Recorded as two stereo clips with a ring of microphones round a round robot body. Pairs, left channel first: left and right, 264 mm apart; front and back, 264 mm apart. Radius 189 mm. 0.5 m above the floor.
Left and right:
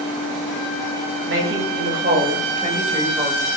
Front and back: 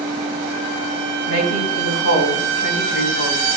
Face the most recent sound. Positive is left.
turn(degrees=-15)